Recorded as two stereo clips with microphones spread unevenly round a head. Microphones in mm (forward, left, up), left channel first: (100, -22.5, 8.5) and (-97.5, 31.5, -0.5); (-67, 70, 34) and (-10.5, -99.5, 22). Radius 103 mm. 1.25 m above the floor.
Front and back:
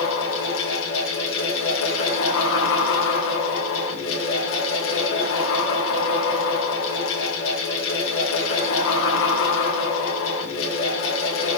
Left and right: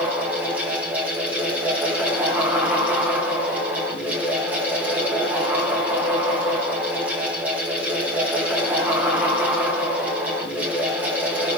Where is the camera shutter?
No camera shutter in this recording.